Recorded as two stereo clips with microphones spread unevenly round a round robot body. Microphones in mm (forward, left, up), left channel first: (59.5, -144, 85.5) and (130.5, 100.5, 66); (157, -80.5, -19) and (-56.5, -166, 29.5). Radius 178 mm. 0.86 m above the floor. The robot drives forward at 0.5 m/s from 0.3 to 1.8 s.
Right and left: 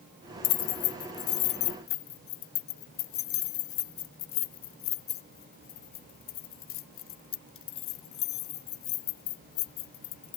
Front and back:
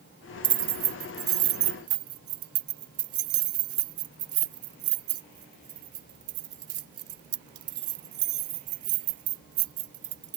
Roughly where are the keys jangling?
Behind right.